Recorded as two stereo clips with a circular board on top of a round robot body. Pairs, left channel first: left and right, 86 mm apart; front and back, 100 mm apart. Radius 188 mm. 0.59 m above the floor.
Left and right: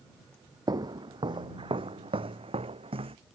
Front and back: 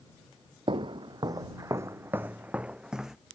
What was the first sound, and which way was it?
Footsteps, 140° right.